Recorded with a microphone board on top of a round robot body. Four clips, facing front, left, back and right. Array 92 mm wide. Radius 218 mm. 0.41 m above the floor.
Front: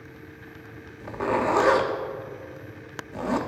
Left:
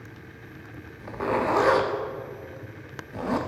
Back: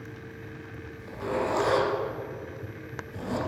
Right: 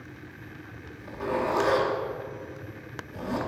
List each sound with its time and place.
1.0 s a zipper: 40° left, 0.7 m